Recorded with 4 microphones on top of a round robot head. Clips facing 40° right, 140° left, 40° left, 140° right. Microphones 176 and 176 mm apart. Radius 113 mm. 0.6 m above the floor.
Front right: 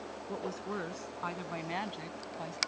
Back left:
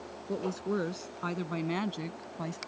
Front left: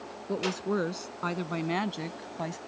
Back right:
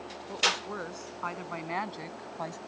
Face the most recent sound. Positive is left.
turn(degrees=110)